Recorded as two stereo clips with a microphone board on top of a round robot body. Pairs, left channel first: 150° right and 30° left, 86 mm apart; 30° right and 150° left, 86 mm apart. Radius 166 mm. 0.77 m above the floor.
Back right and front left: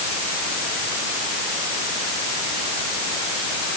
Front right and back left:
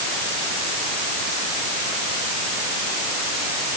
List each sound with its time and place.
Only background noise.